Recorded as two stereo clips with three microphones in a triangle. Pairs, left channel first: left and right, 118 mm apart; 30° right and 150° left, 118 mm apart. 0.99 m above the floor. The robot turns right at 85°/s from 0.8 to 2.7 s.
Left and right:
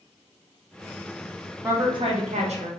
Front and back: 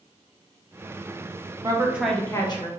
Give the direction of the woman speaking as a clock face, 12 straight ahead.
5 o'clock.